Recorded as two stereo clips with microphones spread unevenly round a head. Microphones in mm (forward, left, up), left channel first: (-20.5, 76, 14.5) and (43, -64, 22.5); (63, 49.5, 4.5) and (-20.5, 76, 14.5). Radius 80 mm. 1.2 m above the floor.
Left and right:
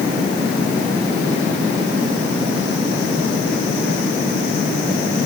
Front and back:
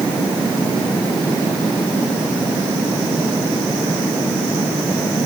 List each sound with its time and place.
Only background noise.